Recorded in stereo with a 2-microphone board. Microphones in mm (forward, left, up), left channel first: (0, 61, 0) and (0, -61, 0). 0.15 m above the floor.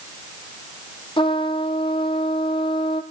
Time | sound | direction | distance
1.2 | a trumpet | 45° left (ahead or behind) | 1.3 m